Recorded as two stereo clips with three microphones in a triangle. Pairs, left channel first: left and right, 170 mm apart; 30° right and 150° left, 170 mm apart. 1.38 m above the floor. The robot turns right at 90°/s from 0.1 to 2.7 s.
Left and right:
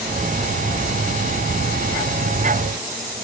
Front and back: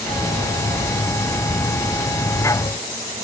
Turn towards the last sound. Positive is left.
No sound to turn to.